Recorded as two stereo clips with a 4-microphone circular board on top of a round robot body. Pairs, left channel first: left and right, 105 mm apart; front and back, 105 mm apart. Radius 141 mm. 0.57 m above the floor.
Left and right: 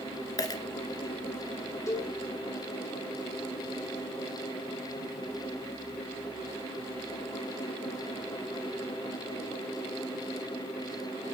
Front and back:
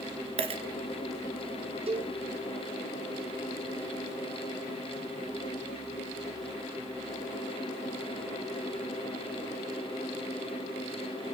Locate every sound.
0.4 s a dropped coin: 145° left, 1.5 m
1.9 s a cowbell: 150° left, 6.5 m